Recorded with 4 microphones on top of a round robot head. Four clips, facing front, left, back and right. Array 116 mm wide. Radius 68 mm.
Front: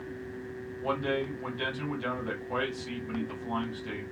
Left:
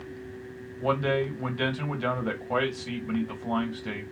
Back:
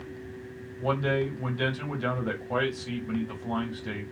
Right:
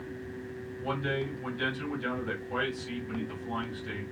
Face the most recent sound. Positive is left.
turn(degrees=105)